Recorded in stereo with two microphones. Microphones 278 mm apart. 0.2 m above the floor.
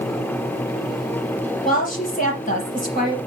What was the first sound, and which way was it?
A woman speaking, 30° left (ahead or behind).